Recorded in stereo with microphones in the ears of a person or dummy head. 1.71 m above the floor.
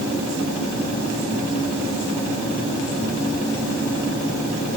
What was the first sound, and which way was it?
Only background noise.